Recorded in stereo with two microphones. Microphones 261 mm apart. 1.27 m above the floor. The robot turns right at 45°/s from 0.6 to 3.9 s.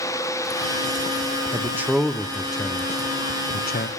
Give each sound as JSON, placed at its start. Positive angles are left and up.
{"t": 1.5, "sound": "a man speaking", "side_deg": -15, "distance_m": 0.6}